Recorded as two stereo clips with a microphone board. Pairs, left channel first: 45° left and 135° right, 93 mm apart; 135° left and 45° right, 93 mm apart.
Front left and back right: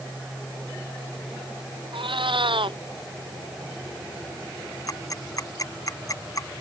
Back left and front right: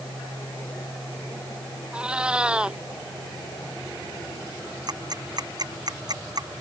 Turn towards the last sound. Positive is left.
turn(degrees=-5)